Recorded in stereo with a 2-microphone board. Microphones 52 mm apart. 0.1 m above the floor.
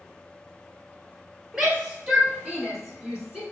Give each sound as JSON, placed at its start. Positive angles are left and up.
{"t": 1.5, "sound": "a shout", "side_deg": -5, "distance_m": 1.8}